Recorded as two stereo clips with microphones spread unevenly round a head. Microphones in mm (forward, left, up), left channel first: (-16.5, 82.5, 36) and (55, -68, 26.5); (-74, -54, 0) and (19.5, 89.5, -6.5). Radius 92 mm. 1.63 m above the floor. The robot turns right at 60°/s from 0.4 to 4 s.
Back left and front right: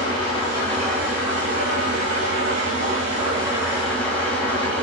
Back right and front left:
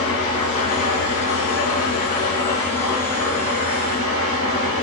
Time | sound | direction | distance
0.0 | an engine running | straight behind | 1.9 m